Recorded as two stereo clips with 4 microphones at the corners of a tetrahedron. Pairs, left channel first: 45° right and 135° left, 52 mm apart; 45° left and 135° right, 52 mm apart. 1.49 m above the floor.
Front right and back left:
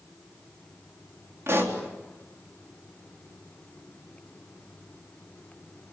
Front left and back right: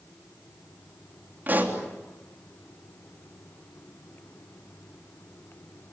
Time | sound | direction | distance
1.5 | a pop | 170° left | 3.5 m